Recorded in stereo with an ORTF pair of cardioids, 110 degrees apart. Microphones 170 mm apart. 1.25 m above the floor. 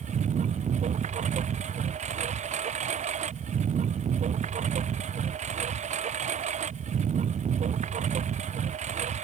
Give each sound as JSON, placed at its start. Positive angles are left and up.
{"t": 0.0, "sound": "a lawn mower", "azimuth_deg": -45}